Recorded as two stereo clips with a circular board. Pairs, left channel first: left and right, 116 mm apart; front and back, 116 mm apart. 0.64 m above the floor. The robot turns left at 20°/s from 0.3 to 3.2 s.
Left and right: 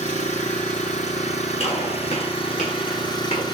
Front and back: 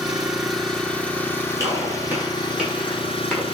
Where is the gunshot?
120° left, 8.5 m; by 3.5 s 85° left, 8.5 m.